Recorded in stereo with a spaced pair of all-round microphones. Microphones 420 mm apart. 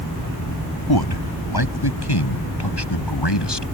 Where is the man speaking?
55° left (ahead or behind); by 3.7 s 70° left (ahead or behind).